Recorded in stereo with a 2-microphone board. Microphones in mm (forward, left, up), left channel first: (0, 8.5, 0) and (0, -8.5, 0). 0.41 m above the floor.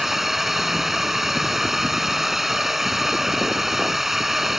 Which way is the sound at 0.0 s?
15° right (ahead or behind).